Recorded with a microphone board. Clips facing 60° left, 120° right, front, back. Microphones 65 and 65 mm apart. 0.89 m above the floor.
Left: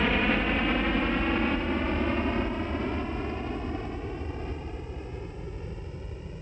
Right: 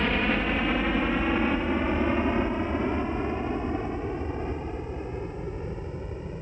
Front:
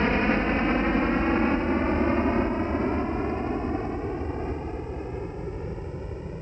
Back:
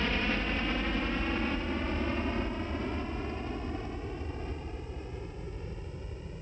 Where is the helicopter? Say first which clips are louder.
Even, front 8 dB; 25° right; by 6.4 s 55° right.